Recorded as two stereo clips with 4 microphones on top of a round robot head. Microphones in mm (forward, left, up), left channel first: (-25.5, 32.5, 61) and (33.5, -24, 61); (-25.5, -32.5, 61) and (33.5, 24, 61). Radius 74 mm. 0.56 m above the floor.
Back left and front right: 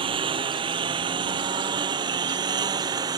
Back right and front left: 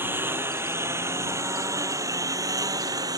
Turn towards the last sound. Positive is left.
turn(degrees=0)